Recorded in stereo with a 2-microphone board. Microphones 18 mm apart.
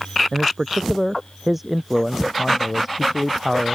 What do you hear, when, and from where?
0.3 s a man speaking: 10° right (ahead or behind); by 3.8 s centre (ahead or behind)